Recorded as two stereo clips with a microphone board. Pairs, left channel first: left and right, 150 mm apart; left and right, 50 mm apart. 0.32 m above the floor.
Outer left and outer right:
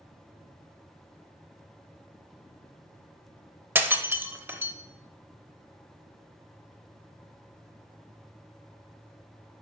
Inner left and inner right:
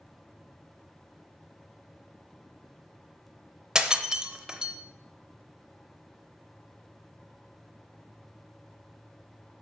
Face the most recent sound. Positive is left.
turn(degrees=-15)  # may be behind; listen again after turning